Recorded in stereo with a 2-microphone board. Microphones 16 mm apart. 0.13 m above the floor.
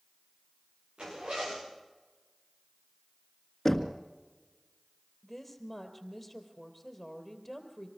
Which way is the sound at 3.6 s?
25° left (ahead or behind).